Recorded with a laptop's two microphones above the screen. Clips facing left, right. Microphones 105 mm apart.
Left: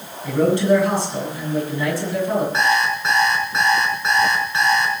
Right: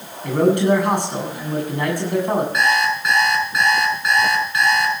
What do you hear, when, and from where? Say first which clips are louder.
0.2 s a man speaking: right 1 dB; 60° right (ahead or behind), 7.5 m
2.5 s an alarm clock: even; 30° left (ahead or behind), 5 m